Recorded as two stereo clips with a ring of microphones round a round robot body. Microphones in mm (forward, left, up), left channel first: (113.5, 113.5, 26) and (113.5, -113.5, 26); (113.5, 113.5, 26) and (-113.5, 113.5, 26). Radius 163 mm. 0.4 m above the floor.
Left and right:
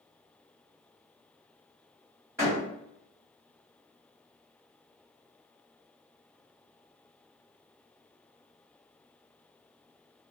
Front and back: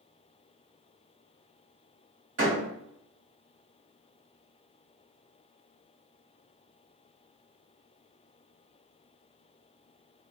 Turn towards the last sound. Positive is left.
turn(degrees=-170)